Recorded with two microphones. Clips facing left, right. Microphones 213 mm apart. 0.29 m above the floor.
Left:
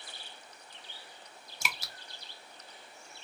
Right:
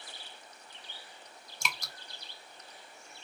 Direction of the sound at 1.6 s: 5° left (ahead or behind).